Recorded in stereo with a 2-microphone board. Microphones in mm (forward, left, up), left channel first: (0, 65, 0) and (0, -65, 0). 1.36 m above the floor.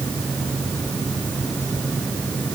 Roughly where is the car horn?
I don't hear a car horn.